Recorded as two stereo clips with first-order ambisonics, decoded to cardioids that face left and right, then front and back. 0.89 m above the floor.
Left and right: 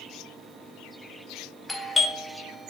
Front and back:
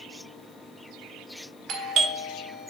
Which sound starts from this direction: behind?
A doorbell, at 1.7 s.